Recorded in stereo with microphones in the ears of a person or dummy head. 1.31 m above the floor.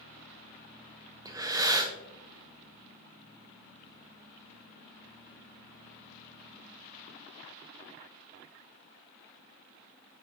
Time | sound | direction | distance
1.2 | breathing | 15° right (ahead or behind) | 0.5 m